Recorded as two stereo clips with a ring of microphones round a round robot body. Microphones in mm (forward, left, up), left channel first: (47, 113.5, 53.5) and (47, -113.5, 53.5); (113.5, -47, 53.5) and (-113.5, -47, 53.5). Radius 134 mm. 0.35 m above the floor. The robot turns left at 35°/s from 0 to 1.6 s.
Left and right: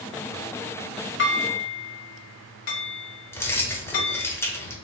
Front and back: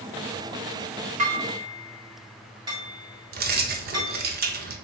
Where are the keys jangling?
165° left, 0.7 m.